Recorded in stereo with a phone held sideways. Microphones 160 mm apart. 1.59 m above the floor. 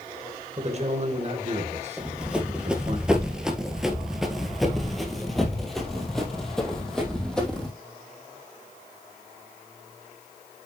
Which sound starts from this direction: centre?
Running footsteps, at 2.0 s.